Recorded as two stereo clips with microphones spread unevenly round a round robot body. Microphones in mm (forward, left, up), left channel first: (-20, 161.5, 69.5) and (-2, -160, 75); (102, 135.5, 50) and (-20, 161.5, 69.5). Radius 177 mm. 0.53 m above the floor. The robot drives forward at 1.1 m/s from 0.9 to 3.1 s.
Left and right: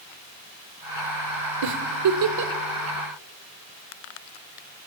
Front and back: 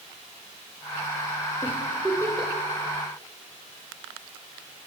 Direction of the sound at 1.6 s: 85° right.